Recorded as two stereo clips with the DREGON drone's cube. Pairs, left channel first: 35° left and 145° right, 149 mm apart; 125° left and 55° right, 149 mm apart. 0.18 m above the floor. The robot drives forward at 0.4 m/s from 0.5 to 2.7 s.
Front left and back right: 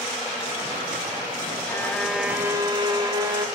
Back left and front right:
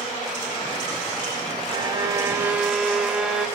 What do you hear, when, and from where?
1.7 s a violin: 30° right, 0.5 m; by 3.5 s 135° right, 0.5 m